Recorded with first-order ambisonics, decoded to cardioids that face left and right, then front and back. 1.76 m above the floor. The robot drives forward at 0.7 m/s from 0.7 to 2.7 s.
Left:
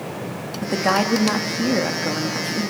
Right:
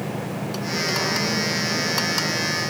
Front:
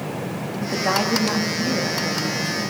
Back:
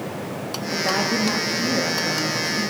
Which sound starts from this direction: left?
A woman speaking, at 0.6 s.